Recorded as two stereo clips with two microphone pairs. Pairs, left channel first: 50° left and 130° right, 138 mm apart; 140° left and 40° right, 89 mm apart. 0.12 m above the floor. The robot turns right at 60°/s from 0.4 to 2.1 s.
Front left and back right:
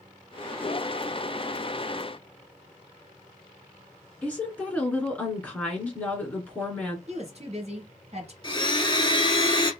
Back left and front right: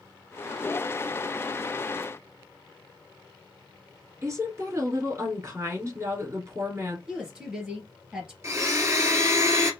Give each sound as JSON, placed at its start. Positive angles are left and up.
{"t": 4.2, "sound": "a woman speaking", "azimuth_deg": -20, "distance_m": 1.8}
{"t": 7.1, "sound": "a woman speaking", "azimuth_deg": -125, "distance_m": 2.5}
{"t": 8.4, "sound": "a blender", "azimuth_deg": 10, "distance_m": 0.9}